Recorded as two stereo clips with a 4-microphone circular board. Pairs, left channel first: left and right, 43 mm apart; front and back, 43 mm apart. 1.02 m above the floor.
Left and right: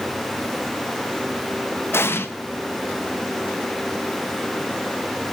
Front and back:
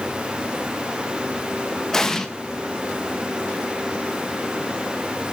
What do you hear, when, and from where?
1.9 s an explosion: 80° left, 1.1 m